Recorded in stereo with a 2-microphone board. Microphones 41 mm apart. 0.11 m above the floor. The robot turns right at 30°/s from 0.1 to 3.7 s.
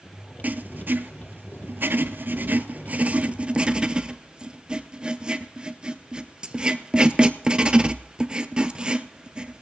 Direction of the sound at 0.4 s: 45° right (ahead or behind).